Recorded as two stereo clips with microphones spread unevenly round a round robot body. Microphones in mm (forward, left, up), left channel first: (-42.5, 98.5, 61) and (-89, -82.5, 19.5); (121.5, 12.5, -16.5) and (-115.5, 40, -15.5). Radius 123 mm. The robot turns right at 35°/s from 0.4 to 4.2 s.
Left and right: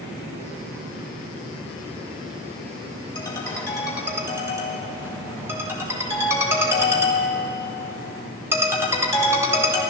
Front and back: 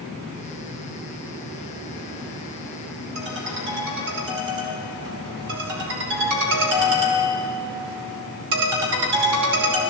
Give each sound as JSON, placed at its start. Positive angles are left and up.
{"t": 3.1, "sound": "a ringtone", "azimuth_deg": 140, "distance_m": 2.5}